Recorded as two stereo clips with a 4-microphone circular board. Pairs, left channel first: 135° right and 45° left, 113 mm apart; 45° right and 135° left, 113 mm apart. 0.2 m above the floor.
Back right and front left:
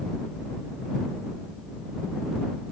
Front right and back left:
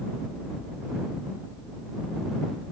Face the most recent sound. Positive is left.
No sound to turn to.